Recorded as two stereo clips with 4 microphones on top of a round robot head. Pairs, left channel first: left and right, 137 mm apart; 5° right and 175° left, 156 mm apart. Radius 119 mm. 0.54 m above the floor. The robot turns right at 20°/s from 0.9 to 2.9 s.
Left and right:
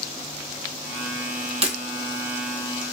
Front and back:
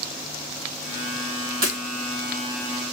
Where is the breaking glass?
130° right, 1.1 m.